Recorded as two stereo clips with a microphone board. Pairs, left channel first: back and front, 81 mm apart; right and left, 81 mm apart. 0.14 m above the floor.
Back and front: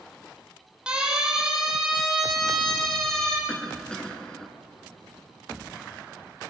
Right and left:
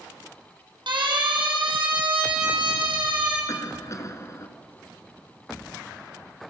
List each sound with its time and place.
0.9 s a siren: 80° left, 5.5 m; by 3.4 s 100° left, 6.5 m
3.5 s a cough: 105° right, 1.8 m